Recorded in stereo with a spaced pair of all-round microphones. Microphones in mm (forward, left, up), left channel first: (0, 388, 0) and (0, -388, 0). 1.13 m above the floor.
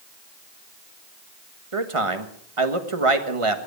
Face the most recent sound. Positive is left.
turn(degrees=-40)  # may be behind; listen again after turning